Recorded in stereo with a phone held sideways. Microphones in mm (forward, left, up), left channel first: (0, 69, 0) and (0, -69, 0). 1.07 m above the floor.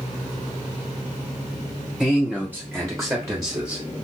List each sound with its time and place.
2.0 s a man speaking: 5° right (ahead or behind), 0.9 m; by 3.8 s 25° right (ahead or behind), 1.6 m